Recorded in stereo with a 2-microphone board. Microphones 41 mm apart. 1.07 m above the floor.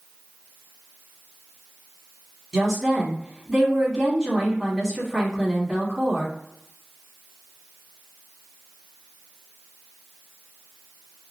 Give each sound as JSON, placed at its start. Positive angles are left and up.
{"t": 2.5, "sound": "a woman speaking", "side_deg": -15, "distance_m": 1.9}